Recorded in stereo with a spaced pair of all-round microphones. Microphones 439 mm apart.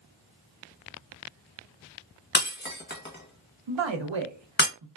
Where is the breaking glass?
25° left (ahead or behind), 0.8 m.